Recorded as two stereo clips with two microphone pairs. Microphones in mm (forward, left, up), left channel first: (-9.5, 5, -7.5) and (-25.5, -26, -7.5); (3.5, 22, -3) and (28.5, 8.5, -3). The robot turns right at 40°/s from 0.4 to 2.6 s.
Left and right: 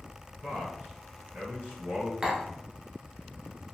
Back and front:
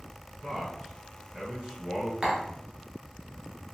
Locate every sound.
0.4 s a man speaking: 135° right, 2.0 m; by 2.1 s 70° right, 2.0 m
2.2 s tapping: 65° right, 0.9 m; by 2.4 s 60° right, 0.9 m